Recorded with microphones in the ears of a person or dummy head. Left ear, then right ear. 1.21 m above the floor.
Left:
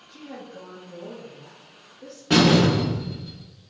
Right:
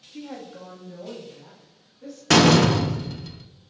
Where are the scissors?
No scissors in this recording.